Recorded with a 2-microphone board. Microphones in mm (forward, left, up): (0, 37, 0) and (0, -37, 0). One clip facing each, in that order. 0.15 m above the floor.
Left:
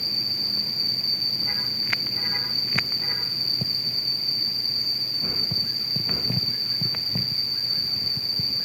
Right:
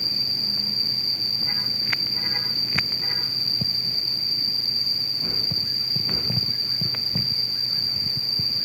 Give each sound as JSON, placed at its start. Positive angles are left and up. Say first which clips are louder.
{"t": 0.0, "sound": "an insect", "louder": "right 1 dB", "side_deg": 55}